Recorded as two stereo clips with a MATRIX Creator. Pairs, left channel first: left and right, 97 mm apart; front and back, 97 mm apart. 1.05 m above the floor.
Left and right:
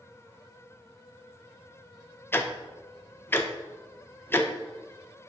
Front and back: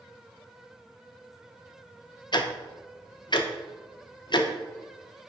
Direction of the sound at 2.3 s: 25° left.